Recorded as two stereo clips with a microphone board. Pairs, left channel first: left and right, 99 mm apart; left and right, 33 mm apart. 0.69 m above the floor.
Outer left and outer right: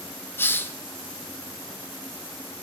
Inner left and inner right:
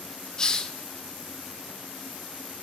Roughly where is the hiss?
Left.